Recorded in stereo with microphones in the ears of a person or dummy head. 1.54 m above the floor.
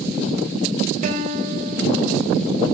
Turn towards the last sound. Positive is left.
turn(degrees=-45)  # may be behind; listen again after turning